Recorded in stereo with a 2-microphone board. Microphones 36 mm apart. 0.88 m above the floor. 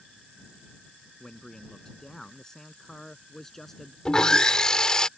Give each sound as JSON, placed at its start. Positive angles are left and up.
{"t": 1.2, "sound": "a man speaking", "side_deg": 20}
{"t": 4.0, "sound": "sawing", "side_deg": 20}